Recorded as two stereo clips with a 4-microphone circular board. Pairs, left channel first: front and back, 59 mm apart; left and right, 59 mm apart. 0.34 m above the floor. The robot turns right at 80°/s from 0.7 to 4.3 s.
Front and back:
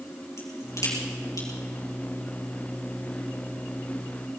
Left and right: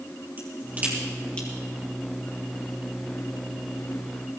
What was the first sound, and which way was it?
A crack, 35° right.